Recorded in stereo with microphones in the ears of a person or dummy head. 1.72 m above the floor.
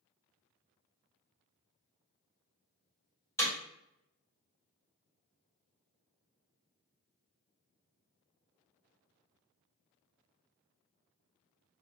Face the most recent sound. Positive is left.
turn(degrees=15)  # may be behind; listen again after turning